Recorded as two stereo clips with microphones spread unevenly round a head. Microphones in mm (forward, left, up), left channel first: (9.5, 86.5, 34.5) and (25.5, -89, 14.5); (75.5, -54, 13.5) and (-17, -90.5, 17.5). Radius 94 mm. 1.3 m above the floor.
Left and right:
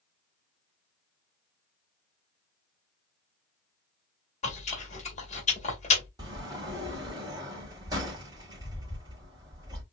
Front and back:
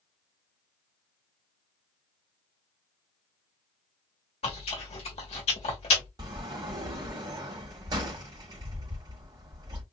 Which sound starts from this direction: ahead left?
Chewing, at 4.4 s.